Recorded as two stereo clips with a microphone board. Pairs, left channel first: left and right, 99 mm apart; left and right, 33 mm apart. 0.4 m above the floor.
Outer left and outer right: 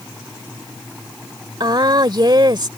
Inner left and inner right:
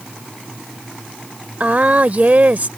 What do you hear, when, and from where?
1.6 s a woman speaking: 50° right (ahead or behind)